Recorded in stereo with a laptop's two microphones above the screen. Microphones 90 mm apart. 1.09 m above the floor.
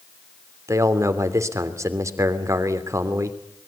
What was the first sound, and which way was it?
A man speaking, 35° right (ahead or behind).